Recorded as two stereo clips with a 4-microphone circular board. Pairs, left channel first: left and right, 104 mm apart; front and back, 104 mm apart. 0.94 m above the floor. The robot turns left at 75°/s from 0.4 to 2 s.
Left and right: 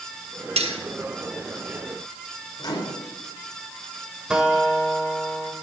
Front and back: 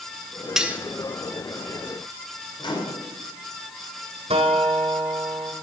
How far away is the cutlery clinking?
About 0.9 m.